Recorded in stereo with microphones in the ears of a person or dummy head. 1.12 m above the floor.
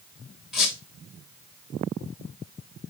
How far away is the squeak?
About 1.3 m.